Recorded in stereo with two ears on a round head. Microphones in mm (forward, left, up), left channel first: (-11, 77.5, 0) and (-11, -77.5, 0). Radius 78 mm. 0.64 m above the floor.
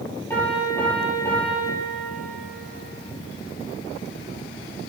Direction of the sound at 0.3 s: 10° left (ahead or behind).